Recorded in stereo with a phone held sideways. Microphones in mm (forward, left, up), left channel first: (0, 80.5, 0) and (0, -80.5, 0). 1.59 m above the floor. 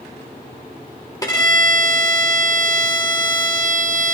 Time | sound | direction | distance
1.2 | a violin | 25° left (ahead or behind) | 1.6 m